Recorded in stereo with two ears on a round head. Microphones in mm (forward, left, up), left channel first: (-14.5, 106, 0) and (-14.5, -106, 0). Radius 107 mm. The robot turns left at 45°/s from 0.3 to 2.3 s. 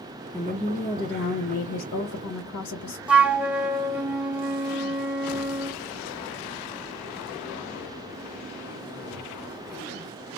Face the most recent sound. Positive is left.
turn(degrees=-5)  # may be behind; listen again after turning